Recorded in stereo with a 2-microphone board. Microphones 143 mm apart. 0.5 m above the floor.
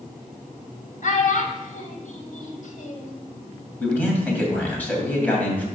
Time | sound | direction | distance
1.0 | a child speaking | 65° left (ahead or behind) | 1.7 m
3.8 | a man speaking | 10° left (ahead or behind) | 2.5 m